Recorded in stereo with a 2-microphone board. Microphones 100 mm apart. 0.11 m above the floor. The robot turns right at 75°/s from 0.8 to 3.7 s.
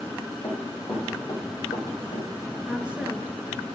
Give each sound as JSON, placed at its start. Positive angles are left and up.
{"t": 0.4, "sound": "running footsteps", "side_deg": 35, "distance_m": 4.5}
{"t": 2.7, "sound": "a woman speaking", "side_deg": -5, "distance_m": 1.1}